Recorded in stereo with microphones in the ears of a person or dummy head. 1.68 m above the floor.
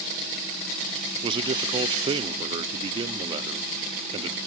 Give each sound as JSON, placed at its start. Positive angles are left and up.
{"t": 1.2, "sound": "a man speaking", "side_deg": -30, "distance_m": 0.7}